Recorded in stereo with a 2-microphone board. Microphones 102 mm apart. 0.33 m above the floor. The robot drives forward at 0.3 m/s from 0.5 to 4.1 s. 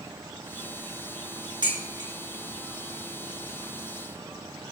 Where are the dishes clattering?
50° right (ahead or behind), 3 m.